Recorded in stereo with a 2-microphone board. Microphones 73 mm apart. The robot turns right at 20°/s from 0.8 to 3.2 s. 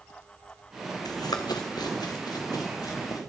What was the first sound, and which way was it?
Running footsteps, 80° left.